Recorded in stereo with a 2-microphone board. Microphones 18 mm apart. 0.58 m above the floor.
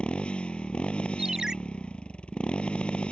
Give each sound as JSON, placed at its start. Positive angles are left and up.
{"t": 0.0, "sound": "a motorcycle", "side_deg": 85}
{"t": 1.2, "sound": "a ringtone", "side_deg": -35}